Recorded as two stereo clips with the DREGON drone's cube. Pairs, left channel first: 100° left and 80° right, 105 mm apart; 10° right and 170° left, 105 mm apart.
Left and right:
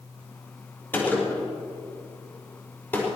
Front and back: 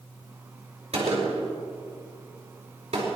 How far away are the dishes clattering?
I don't hear dishes clattering.